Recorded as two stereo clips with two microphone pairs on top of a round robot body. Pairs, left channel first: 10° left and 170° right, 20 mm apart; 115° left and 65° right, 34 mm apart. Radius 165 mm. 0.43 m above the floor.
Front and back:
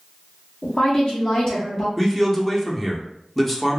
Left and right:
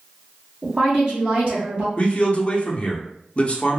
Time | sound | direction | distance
0.6 | a woman speaking | 5° right | 1.8 m
2.0 | a man speaking | 90° left | 0.9 m